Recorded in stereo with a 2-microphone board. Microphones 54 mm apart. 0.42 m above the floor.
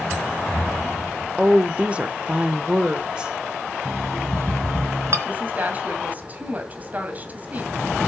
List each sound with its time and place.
1.4 s a woman speaking: 25° right (ahead or behind), 0.9 m; by 3.3 s 20° right (ahead or behind), 1.2 m
3.9 s an alarm clock: 60° right (ahead or behind), 1.8 m
5.2 s a woman speaking: 30° right (ahead or behind), 2 m